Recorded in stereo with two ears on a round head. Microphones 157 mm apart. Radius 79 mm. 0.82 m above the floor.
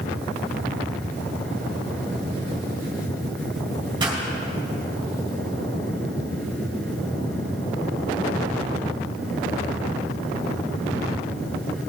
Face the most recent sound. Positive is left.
turn(degrees=-25)  # may be behind; listen again after turning